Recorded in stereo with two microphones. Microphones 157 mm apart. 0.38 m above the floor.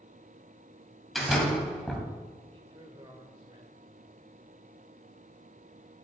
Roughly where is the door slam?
Centre.